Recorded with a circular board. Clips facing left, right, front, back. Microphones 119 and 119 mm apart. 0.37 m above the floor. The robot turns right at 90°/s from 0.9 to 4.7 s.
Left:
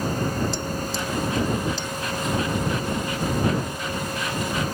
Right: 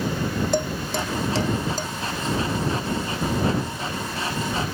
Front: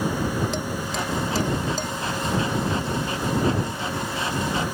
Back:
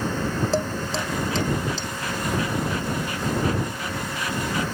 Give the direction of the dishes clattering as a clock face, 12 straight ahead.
4 o'clock.